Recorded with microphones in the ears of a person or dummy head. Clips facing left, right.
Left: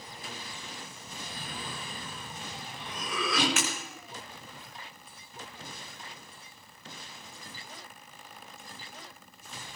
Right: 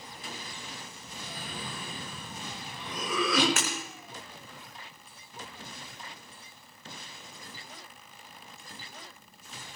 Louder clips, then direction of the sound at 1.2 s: Right 1 dB; 80° right.